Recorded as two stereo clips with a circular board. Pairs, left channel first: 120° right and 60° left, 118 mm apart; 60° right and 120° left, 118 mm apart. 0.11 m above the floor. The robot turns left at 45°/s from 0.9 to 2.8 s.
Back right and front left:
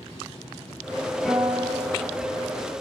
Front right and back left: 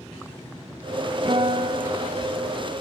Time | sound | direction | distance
1.2 | a guitar | 160° left | 5.5 m